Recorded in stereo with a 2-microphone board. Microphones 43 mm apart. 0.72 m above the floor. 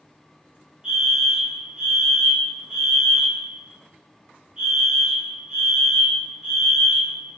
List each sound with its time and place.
0.8 s a fire alarm: 20° right (ahead or behind), 1.5 m